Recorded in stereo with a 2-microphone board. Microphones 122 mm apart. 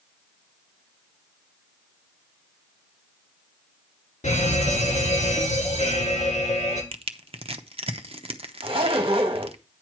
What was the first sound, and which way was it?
A fire alarm, 75° left (ahead or behind).